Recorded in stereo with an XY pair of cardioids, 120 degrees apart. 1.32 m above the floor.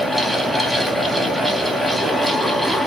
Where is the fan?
10° right, 1.3 m.